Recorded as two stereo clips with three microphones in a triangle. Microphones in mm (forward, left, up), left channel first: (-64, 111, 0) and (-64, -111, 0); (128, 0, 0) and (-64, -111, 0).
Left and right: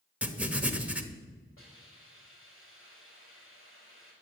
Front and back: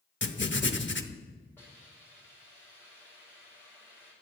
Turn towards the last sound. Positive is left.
turn(degrees=110)